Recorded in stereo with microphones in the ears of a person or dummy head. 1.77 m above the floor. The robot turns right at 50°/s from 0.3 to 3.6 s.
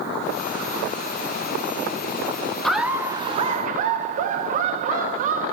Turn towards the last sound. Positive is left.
turn(degrees=-135)